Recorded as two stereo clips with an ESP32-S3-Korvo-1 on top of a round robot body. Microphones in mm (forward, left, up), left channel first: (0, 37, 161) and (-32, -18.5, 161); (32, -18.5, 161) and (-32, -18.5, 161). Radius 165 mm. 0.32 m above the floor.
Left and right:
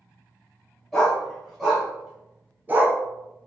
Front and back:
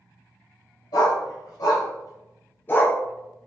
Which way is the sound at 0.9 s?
25° right.